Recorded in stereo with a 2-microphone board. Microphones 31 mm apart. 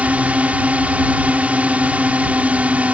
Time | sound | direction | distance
0.0 | a drone | 50° right (ahead or behind) | ?